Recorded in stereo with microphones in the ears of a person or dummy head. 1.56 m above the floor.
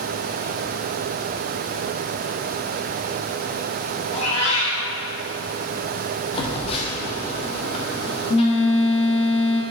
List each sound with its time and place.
4.1 s a cat meowing: 35° left (ahead or behind), 2.0 m
6.3 s a phone buzzing: 35° left (ahead or behind), 1.1 m